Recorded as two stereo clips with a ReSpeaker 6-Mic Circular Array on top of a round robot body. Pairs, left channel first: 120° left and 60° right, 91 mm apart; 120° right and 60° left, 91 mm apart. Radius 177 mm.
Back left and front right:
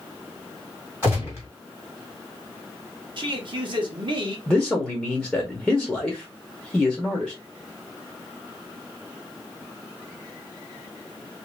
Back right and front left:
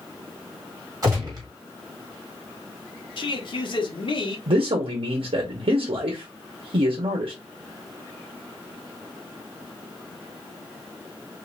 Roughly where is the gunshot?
Ahead.